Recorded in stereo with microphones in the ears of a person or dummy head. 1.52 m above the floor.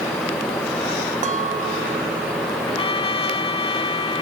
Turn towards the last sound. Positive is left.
turn(degrees=35)  # may be behind; listen again after turning